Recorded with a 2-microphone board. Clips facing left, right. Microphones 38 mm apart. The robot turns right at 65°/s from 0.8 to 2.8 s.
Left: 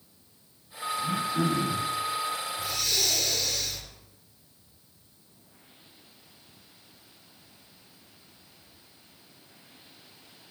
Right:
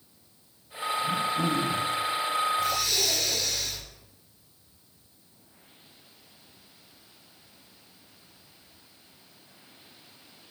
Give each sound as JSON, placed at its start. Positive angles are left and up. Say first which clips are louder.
{"t": 1.0, "sound": "throat clearing", "louder": "even", "azimuth_deg": 35, "distance_m": 8.5}
{"t": 2.6, "sound": "breathing", "louder": "right 3 dB", "side_deg": 10, "distance_m": 3.5}